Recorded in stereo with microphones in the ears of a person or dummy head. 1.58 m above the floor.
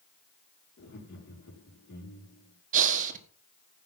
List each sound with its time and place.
0.8 s laughter: 60° left (ahead or behind), 5 m
2.7 s breathing: 45° right (ahead or behind), 1.6 m